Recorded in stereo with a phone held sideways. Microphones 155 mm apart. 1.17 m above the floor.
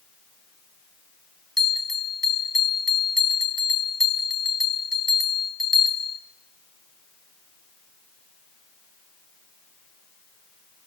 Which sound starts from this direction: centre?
A bell, at 1.6 s.